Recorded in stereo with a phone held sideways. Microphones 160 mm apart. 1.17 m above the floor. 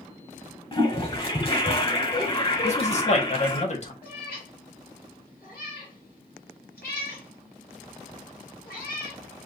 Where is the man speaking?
45° left (ahead or behind), 1.5 m.